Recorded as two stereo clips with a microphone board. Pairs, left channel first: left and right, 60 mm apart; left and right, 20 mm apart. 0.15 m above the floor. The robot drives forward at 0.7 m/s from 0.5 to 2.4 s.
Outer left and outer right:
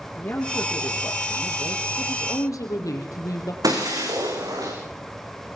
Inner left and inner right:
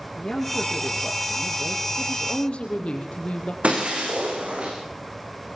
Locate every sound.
0.2 s a man speaking: 45° left (ahead or behind), 6.5 m; by 1.9 s 50° left (ahead or behind), 6 m
2.0 s a woman speaking: 65° left (ahead or behind), 5.5 m
3.6 s breaking glass: 80° right, 8.5 m